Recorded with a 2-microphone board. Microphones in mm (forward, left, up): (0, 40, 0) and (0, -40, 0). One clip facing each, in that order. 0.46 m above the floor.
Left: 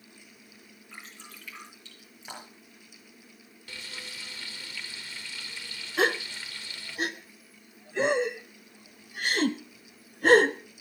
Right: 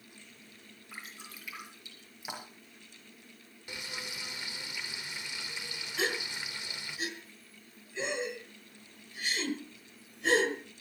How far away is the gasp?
About 0.9 m.